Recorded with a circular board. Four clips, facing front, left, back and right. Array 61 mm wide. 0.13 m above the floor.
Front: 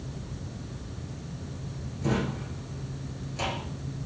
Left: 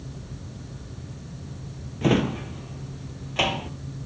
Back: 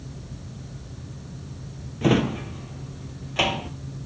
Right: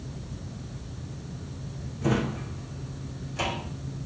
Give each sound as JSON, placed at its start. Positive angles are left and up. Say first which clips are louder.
{"t": 2.0, "sound": "a drawer", "louder": "left 5 dB, back 8 dB", "azimuth_deg": 135, "distance_m": 1.2}